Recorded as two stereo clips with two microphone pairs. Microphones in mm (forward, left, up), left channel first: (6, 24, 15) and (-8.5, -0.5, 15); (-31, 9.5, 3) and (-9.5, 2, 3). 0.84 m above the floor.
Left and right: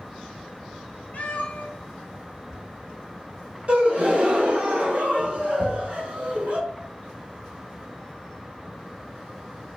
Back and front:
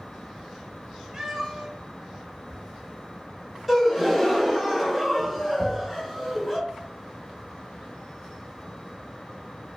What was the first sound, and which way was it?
A cat meowing, 45° left.